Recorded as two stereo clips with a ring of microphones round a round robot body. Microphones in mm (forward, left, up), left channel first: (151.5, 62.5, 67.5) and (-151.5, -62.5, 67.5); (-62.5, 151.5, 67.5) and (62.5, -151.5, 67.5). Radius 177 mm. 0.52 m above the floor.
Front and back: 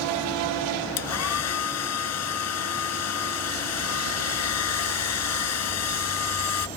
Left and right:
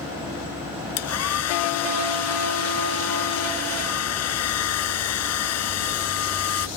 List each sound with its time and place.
1.0 s a hair dryer: 65° left